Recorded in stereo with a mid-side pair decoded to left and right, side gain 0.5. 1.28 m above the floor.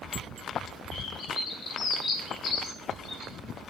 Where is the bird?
55° left, 1.8 m.